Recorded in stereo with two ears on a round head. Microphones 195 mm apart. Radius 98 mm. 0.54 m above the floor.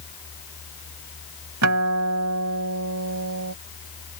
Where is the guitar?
80° right.